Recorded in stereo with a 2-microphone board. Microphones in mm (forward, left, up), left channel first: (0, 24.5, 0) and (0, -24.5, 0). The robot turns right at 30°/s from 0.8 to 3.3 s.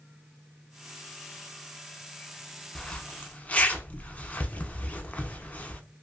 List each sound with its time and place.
2.8 s a zipper: 15° left (ahead or behind), 0.5 m; by 5.8 s 25° left (ahead or behind), 0.5 m